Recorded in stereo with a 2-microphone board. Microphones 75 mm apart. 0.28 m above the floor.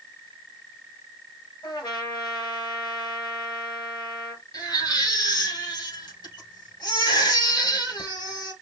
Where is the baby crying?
70° left (ahead or behind), 4 m.